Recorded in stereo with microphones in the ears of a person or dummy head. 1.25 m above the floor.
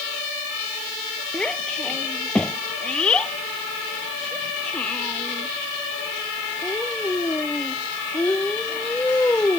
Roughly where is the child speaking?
Centre.